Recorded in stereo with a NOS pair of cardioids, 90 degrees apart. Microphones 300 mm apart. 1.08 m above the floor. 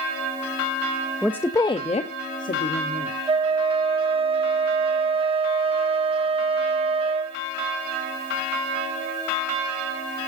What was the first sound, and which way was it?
A woman speaking, straight ahead.